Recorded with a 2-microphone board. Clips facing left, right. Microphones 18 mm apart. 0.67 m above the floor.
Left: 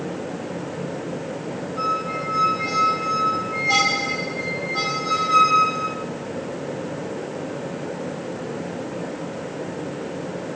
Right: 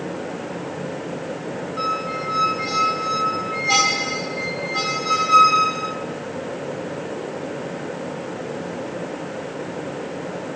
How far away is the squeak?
About 1.7 m.